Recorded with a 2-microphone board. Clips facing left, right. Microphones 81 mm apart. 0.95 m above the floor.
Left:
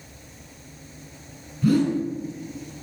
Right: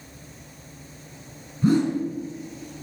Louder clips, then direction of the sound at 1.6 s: Even; 30° right (ahead or behind).